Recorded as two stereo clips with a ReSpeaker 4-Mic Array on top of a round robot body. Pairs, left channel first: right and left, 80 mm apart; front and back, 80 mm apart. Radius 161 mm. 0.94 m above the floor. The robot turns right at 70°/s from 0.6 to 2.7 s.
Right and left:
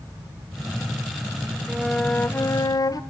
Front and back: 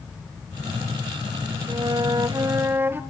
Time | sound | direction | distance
1.7 | a flute | 170° left | 1.2 m